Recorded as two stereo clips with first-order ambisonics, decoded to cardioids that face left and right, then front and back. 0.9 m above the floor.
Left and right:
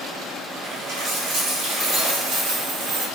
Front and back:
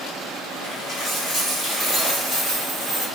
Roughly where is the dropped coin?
Right.